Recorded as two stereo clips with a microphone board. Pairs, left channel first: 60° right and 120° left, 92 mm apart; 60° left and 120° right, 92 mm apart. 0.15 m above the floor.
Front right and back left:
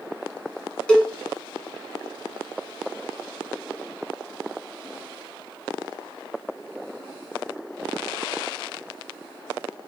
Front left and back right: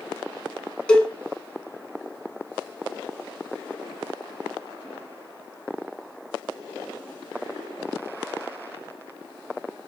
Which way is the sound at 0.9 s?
Straight ahead.